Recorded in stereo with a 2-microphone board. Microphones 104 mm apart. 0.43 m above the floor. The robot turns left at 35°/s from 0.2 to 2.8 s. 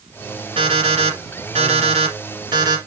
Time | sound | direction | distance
0.6 | an alarm clock | 65° right | 3 m